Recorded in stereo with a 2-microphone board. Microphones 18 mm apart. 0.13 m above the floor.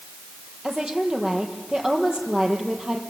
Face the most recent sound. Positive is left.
turn(degrees=-45)  # may be behind; listen again after turning